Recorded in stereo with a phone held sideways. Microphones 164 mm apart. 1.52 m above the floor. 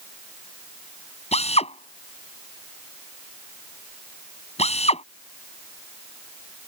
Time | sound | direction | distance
1.3 | a drill | 40° left (ahead or behind) | ?